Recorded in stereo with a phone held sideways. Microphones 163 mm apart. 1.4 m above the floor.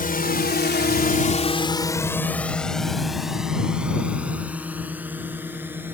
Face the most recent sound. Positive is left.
turn(degrees=-10)  # may be behind; listen again after turning